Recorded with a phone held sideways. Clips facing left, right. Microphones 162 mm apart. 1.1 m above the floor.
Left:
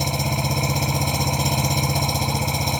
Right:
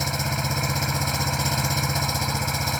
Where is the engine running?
20° left (ahead or behind).